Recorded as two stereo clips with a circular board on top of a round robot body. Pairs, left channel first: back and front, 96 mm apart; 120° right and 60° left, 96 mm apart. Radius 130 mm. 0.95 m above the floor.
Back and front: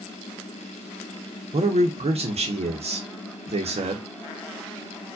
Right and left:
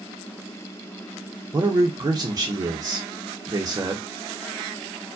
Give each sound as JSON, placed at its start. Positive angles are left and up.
{"t": 1.5, "sound": "a man speaking", "azimuth_deg": 0, "distance_m": 0.7}